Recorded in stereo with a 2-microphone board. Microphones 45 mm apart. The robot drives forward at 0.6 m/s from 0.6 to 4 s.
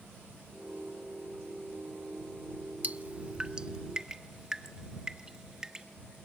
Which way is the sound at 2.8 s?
40° right (ahead or behind).